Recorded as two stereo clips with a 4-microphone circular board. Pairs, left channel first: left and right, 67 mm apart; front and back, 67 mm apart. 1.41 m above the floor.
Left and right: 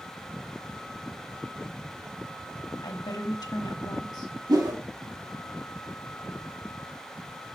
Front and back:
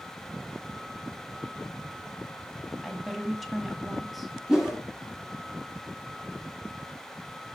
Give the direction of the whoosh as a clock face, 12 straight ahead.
3 o'clock.